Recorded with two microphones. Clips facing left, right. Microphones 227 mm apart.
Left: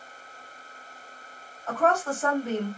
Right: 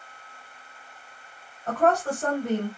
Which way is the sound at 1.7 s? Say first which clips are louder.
Right 2 dB; 65° right (ahead or behind).